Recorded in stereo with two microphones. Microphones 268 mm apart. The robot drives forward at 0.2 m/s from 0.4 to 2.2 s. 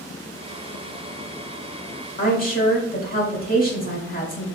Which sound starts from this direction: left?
A woman speaking, at 2.2 s.